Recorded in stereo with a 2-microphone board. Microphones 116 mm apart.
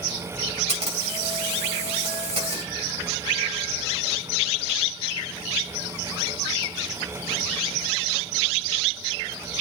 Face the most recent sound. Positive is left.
turn(degrees=-60)  # may be behind; listen again after turning